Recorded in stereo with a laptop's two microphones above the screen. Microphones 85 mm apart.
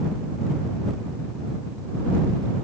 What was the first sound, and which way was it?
Only background noise.